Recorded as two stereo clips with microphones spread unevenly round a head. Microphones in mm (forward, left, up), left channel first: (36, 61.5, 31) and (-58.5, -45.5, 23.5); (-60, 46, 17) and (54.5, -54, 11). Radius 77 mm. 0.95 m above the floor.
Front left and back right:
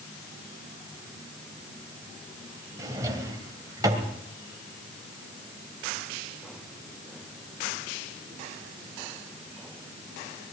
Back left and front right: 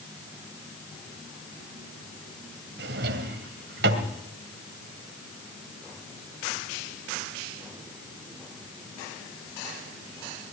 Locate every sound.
2.8 s a drawer: 60° right, 2.5 m